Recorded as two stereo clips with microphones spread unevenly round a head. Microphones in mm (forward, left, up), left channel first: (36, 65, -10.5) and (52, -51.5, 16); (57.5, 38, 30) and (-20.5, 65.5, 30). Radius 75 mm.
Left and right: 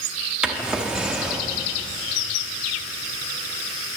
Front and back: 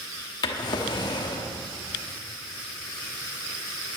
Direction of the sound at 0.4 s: 10° right.